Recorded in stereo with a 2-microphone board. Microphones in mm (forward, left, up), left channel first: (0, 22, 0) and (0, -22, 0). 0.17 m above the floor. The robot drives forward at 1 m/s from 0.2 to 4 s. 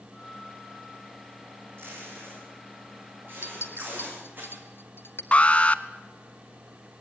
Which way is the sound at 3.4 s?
60° left (ahead or behind).